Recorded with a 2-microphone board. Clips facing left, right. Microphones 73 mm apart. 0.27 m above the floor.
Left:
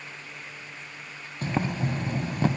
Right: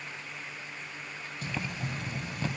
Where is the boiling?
45° left (ahead or behind).